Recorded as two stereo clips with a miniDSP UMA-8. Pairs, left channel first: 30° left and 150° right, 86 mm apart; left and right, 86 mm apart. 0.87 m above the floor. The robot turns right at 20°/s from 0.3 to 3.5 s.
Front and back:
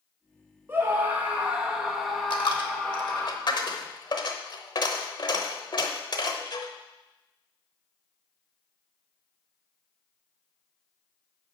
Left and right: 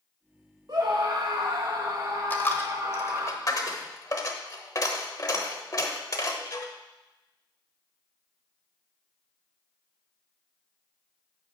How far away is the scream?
About 0.8 m.